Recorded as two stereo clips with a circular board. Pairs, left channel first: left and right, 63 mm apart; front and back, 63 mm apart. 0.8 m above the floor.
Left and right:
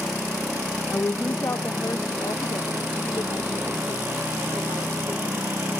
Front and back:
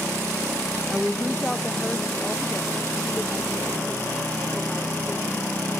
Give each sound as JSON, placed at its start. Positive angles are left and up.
{"t": 0.9, "sound": "a woman speaking", "azimuth_deg": 100, "distance_m": 0.5}